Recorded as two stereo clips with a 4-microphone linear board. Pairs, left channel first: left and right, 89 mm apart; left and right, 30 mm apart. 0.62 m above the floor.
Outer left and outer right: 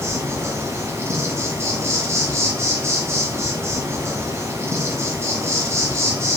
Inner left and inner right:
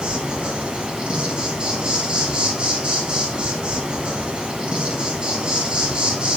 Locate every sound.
0.0 s an insect: 30° right (ahead or behind), 1.1 m